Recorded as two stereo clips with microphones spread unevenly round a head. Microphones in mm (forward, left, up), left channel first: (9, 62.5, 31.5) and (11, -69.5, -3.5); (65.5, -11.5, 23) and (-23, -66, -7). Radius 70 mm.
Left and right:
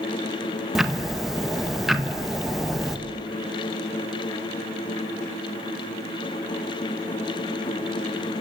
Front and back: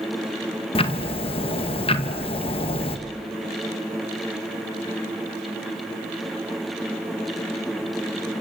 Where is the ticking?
5° right, 1.9 m.